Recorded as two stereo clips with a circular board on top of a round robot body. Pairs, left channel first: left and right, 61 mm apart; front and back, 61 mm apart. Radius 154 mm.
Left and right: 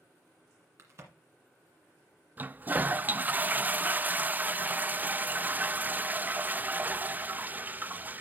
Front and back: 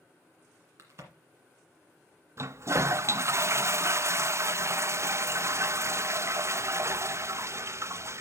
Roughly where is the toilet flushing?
Behind right.